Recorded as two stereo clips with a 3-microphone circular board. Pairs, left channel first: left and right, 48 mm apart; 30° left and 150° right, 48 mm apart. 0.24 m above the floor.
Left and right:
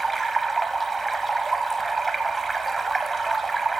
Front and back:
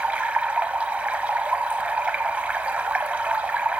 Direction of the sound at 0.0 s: Straight behind.